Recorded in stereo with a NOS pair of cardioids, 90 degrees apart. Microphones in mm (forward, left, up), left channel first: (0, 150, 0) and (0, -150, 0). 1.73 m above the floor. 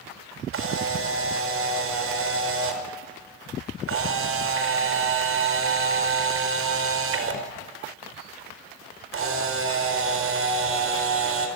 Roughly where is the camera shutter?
Ahead right.